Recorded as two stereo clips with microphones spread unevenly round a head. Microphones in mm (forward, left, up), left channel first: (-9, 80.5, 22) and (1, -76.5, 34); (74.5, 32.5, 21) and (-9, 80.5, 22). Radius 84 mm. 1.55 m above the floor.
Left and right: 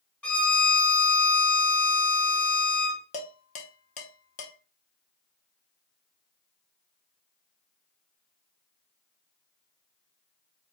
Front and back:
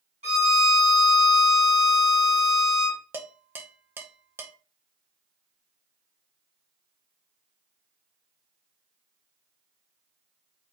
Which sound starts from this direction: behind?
A violin, at 0.2 s.